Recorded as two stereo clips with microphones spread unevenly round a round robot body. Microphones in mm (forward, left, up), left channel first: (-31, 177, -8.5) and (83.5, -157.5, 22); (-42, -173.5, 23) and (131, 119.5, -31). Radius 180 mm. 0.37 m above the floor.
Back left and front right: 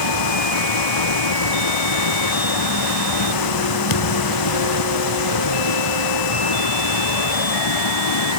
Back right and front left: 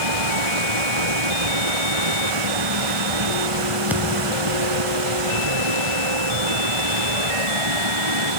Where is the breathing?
I don't hear breathing.